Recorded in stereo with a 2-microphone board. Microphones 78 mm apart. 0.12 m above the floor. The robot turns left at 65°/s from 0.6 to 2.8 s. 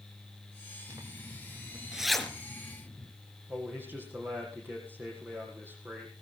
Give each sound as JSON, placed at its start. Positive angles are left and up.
{"t": 0.9, "sound": "a zipper", "side_deg": -45, "distance_m": 1.2}
{"t": 3.5, "sound": "a man speaking", "side_deg": -30, "distance_m": 4.5}